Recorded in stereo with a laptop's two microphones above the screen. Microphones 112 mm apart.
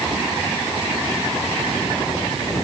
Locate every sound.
Only background noise.